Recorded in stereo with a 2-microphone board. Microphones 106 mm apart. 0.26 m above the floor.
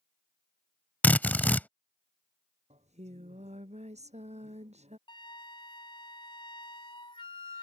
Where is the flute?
50° left (ahead or behind).